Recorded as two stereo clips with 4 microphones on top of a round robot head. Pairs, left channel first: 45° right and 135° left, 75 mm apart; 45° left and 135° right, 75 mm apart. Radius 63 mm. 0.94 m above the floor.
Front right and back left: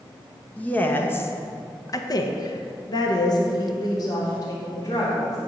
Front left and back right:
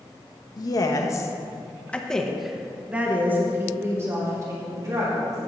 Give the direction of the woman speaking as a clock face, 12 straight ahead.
11 o'clock.